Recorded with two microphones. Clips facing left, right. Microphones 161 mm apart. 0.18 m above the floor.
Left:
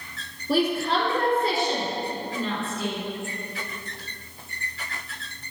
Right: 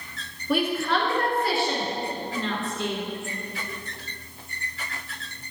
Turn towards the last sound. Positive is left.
turn(degrees=0)  # may be behind; listen again after turning